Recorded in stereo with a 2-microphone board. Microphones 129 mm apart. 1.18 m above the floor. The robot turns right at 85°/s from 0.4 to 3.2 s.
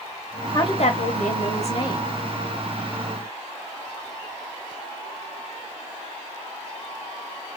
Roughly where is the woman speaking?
Ahead left.